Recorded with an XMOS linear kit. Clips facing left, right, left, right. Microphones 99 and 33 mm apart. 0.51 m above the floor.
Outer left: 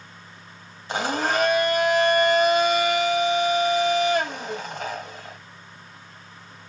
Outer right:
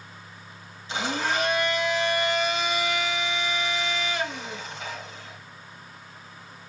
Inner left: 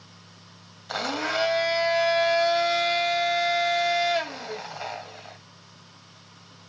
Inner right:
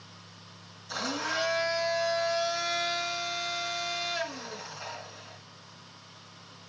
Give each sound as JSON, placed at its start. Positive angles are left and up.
{"t": 0.9, "sound": "a blender", "side_deg": 55, "distance_m": 2.0}